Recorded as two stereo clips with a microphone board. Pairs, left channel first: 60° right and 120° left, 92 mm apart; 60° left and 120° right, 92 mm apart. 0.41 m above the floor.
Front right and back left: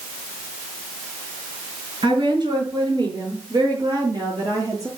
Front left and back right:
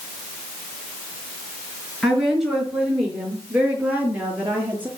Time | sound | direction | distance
2.0 | a woman speaking | 150° left | 6.5 m